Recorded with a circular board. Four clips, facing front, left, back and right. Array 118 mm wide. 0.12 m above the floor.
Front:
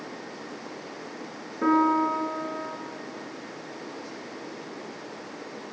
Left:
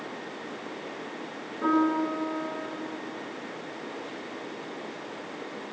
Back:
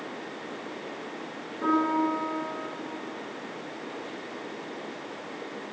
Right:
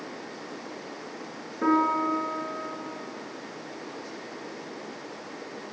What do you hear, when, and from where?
1.6 s a piano: 35° right, 1.6 m